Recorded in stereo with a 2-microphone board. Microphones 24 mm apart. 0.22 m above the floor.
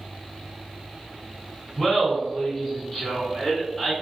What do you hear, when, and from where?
1.8 s laughter: 25° left (ahead or behind), 1.7 m; by 3.9 s 15° left (ahead or behind), 1.8 m